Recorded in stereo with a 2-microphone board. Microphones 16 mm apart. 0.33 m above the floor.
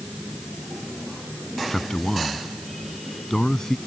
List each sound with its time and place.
1.7 s a man speaking: 35° left (ahead or behind)